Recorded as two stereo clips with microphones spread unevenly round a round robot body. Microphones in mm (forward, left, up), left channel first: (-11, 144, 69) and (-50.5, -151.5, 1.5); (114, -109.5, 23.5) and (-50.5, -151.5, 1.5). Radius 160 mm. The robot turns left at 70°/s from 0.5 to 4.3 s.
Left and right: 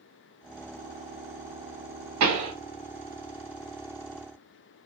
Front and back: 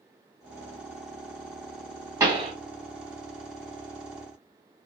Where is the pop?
100° right, 1.4 m; by 2.5 s 120° right, 1.4 m.